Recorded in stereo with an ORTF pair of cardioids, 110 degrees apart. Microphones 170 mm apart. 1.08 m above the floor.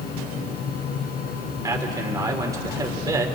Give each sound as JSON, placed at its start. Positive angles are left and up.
{"t": 0.0, "sound": "a fan", "azimuth_deg": 65, "distance_m": 3.5}
{"t": 1.6, "sound": "a man speaking", "azimuth_deg": -20, "distance_m": 3.0}